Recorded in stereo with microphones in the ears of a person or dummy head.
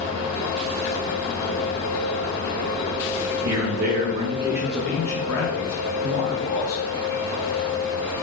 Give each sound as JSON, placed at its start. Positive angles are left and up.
{"t": 3.4, "sound": "a man speaking", "side_deg": -65, "distance_m": 0.8}